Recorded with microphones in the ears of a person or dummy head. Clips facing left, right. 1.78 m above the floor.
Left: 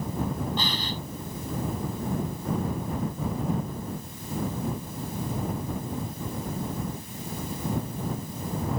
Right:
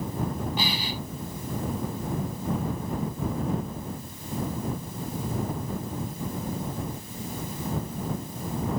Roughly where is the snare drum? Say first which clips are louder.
Right 1 dB; centre.